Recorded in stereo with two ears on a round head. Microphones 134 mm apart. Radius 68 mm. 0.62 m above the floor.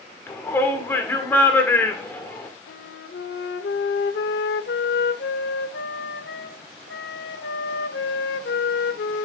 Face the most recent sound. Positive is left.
turn(degrees=75)  # may be behind; listen again after turning